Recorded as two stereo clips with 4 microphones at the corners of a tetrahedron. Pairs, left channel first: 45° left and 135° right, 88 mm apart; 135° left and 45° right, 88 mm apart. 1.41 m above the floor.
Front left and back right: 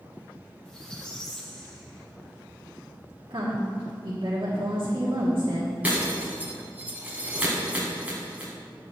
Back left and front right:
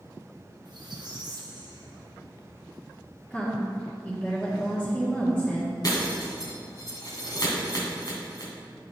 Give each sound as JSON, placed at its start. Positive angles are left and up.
{"t": 0.7, "sound": "a squeak", "azimuth_deg": -35, "distance_m": 1.1}
{"t": 3.3, "sound": "a woman speaking", "azimuth_deg": -150, "distance_m": 1.6}
{"t": 5.8, "sound": "breaking glass", "azimuth_deg": 155, "distance_m": 2.0}